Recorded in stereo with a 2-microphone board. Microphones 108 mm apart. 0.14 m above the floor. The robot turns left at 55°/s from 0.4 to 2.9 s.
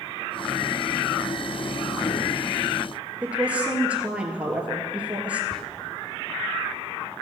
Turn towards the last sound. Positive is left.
turn(degrees=5)  # may be behind; listen again after turning